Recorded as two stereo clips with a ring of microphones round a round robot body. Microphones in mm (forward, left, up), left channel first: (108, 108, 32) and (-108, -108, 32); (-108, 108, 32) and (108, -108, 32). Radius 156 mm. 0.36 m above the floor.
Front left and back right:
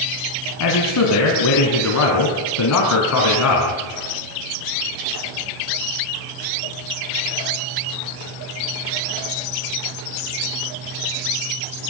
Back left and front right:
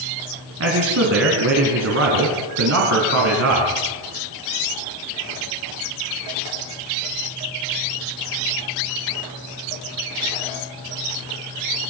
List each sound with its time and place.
0.6 s a man speaking: 5° left, 3.5 m